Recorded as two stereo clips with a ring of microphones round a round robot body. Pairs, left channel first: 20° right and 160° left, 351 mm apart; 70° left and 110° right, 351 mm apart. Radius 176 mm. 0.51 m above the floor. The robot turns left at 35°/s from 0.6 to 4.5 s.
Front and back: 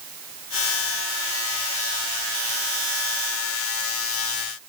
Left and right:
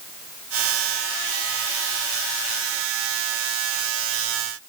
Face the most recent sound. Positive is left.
No sound to turn to.